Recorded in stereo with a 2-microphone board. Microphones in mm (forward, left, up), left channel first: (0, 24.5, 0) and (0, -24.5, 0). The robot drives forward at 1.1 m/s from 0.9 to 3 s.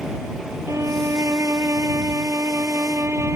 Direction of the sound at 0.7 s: 85° right.